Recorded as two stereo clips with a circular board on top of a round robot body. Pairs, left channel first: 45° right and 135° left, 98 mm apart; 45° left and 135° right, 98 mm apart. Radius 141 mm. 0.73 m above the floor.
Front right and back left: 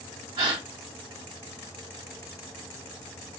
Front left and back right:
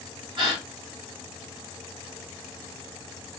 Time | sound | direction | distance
0.4 | a gasp | straight behind | 2.5 m